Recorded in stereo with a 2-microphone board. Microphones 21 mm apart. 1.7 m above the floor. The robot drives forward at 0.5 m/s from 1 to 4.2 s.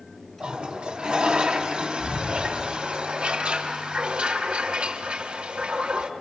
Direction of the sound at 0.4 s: 55° right (ahead or behind).